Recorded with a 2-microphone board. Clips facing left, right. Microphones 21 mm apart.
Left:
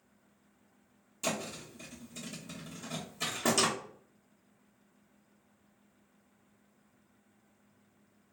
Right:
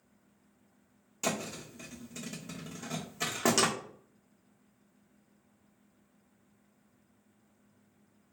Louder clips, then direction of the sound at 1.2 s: Right 1 dB; 40° right (ahead or behind).